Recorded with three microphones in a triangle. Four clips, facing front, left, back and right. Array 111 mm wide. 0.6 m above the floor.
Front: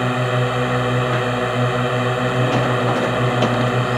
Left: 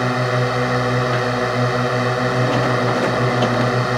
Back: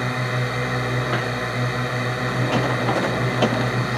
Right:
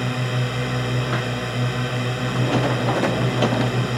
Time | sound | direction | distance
0.0 | a drone | 50° left | ?